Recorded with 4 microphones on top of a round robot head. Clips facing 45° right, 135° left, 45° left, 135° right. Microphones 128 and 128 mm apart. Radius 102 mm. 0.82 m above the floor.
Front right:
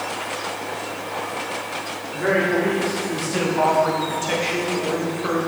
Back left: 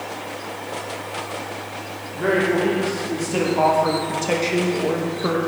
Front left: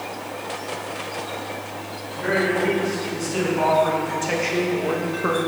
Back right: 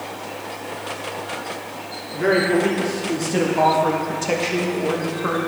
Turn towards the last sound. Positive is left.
turn(degrees=115)